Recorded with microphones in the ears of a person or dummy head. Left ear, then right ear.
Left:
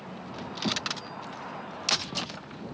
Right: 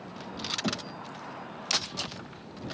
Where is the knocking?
10° right (ahead or behind).